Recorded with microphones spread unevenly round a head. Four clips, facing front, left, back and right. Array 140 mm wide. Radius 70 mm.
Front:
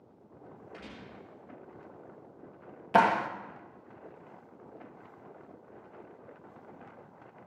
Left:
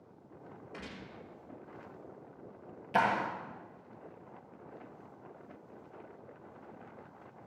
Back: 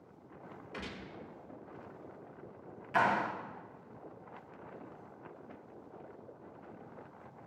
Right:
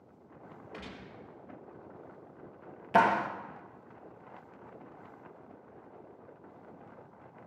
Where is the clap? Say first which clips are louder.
Right 4 dB, front 6 dB; 25° right, 1.5 m.